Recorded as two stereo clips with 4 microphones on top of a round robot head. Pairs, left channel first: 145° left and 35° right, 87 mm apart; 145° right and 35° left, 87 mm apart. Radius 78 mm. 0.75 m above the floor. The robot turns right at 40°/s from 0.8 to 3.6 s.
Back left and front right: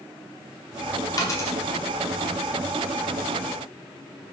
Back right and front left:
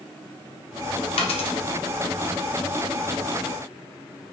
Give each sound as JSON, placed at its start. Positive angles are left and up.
{"t": 1.2, "sound": "a dropped coin", "azimuth_deg": -160, "distance_m": 0.7}